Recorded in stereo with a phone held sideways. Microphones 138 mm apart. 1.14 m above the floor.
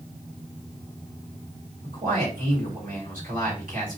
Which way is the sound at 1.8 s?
80° right.